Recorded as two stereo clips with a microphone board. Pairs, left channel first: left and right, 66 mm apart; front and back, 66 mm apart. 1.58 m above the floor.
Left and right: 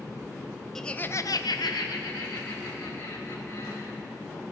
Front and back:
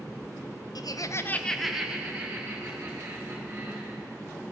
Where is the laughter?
5° left, 0.8 m; by 4.0 s 125° left, 3.5 m.